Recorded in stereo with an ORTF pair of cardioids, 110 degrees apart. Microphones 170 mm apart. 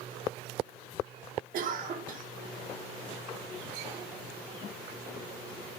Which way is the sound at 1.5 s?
60° right.